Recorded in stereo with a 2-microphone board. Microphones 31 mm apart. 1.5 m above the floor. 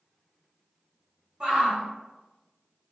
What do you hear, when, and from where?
1.4 s a shout: 30° right (ahead or behind), 1.6 m